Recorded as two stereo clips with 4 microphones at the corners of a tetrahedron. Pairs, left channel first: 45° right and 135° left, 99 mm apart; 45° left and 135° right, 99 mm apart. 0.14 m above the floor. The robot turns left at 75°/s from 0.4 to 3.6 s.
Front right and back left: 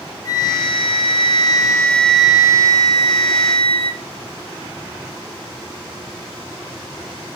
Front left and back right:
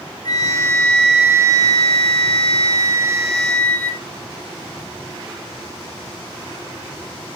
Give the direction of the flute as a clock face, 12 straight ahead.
12 o'clock.